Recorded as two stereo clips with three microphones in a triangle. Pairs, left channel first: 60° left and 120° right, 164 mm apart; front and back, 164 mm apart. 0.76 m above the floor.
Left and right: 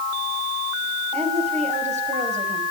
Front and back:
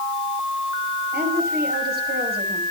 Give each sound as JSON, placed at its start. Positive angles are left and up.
{"t": 1.1, "sound": "a woman speaking", "azimuth_deg": -170, "distance_m": 5.5}